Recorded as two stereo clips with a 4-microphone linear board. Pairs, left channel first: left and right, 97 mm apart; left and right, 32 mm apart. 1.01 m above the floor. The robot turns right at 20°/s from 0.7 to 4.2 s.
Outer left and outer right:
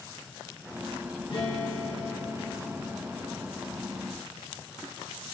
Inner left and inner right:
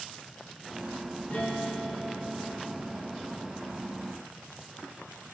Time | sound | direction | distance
1.3 | a guitar | 90° left | 0.9 m